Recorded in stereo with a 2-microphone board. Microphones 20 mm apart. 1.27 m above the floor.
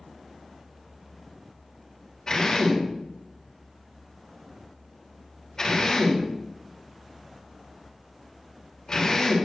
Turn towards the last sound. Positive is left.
turn(degrees=45)  # may be behind; listen again after turning